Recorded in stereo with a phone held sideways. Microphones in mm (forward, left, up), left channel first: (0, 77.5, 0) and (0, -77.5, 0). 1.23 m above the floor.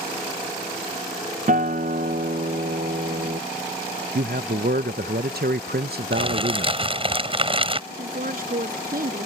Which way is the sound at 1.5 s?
55° right (ahead or behind).